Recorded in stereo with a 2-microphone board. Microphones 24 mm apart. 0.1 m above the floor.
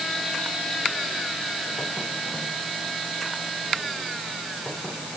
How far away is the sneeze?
No sneeze in this recording.